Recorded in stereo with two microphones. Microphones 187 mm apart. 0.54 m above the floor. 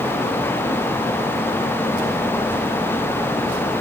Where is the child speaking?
I don't hear a child speaking.